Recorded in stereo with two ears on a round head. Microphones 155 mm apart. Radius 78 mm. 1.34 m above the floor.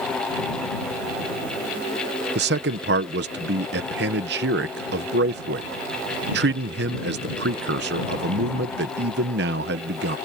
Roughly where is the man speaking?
Right.